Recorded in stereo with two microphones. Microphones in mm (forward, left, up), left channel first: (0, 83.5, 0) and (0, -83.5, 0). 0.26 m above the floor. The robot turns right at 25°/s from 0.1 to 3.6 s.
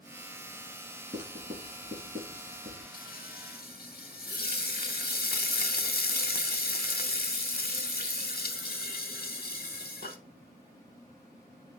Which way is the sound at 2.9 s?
55° left (ahead or behind).